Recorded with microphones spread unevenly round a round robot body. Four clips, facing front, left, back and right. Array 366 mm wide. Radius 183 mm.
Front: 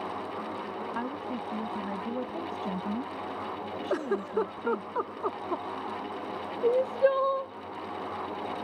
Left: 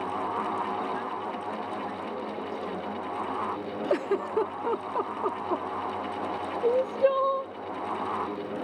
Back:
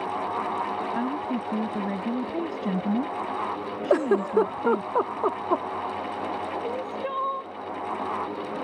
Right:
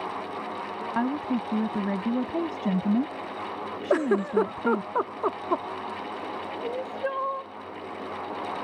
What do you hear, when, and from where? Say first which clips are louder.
0.9 s a woman speaking: right 6 dB, back 6 dB; 120° right
3.9 s a giggle: right 4 dB, back 9 dB; 170° right
6.6 s crying: left 9 dB, front 6 dB; 55° left